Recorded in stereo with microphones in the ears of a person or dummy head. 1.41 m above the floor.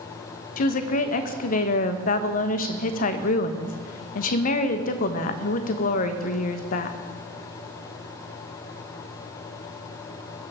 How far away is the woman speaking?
About 1.3 m.